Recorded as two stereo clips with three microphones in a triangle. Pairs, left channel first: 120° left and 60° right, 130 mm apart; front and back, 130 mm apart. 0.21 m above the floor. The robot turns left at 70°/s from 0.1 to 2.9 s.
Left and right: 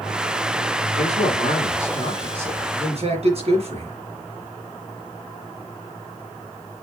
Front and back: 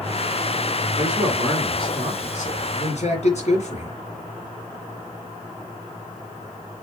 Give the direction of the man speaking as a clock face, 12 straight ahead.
8 o'clock.